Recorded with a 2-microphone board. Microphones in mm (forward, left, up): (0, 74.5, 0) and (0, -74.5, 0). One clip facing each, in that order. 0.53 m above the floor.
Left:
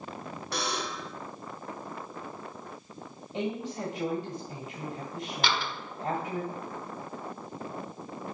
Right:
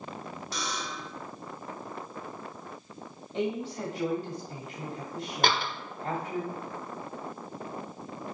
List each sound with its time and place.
0.5 s a buzzer: 65° left (ahead or behind), 1.2 m
3.3 s a woman speaking: 10° left (ahead or behind), 1.9 m
5.4 s a door slam: 50° right (ahead or behind), 1.2 m